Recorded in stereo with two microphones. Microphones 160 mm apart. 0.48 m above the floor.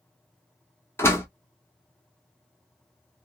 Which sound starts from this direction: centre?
A door slam, at 1.0 s.